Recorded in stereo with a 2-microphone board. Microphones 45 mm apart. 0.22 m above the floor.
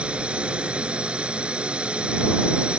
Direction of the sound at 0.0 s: 25° right (ahead or behind).